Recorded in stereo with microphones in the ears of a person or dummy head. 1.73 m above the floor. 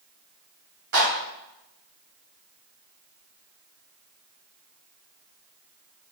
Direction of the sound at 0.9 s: 60° right (ahead or behind).